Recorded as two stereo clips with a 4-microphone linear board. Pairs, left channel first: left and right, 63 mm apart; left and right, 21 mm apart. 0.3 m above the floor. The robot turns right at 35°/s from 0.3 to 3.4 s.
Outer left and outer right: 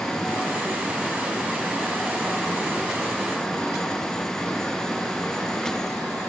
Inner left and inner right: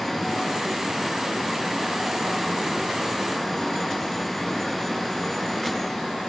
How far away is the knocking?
I don't hear knocking.